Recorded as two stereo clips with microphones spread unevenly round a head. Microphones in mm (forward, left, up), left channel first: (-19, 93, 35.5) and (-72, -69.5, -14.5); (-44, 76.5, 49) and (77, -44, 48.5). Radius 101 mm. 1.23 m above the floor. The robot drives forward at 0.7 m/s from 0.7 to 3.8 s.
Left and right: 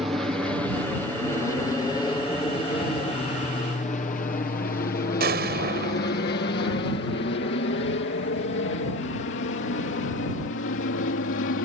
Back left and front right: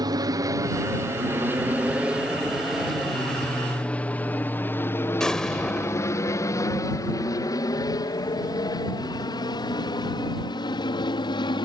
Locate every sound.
0.0 s an aircraft: 60° right; by 11.7 s 75° left
5.2 s an explosion: 140° right